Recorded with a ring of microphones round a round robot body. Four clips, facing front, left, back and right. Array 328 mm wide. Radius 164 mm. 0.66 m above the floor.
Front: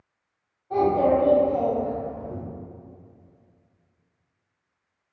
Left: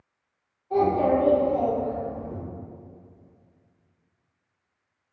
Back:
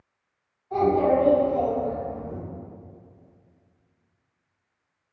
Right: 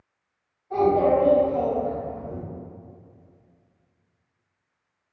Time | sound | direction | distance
0.7 | a child speaking | 10° right | 1.8 m